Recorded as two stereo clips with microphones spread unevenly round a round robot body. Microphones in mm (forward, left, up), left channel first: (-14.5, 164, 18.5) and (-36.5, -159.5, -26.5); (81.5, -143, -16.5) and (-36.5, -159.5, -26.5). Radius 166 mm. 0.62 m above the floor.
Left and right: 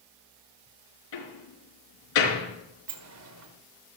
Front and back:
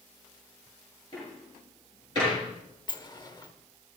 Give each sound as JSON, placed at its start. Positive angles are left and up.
{"t": 1.1, "sound": "a door slam", "azimuth_deg": 80, "distance_m": 5.0}
{"t": 2.9, "sound": "a sliding door", "azimuth_deg": -50, "distance_m": 1.6}